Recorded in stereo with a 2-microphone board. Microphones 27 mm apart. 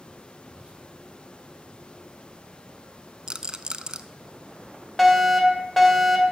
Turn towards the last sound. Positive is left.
turn(degrees=5)  # may be behind; listen again after turning